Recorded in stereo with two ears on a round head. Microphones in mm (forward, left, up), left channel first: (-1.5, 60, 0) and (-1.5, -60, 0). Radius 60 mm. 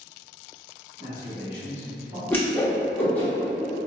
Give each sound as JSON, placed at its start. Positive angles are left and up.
{"t": 1.0, "sound": "a man speaking", "side_deg": 40, "distance_m": 1.9}
{"t": 2.3, "sound": "a whoosh", "side_deg": 15, "distance_m": 0.7}